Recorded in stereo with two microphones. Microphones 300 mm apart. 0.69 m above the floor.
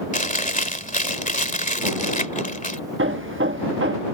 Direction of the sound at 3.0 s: 45° right (ahead or behind).